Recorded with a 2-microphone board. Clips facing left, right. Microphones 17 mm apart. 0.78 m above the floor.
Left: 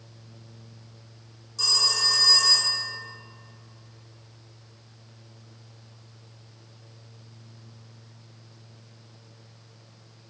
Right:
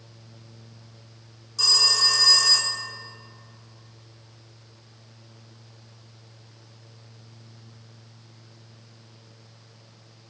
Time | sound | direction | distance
1.6 | a phone ringing | 20° right (ahead or behind) | 1.0 m